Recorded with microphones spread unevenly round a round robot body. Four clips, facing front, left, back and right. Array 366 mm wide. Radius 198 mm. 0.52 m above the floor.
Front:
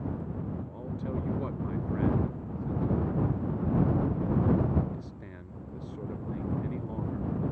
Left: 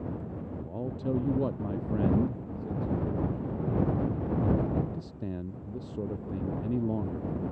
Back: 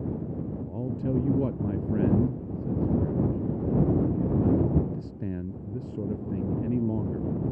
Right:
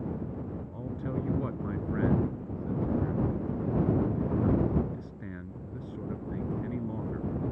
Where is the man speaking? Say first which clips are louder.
Left 2 dB, back 5 dB; 165° left.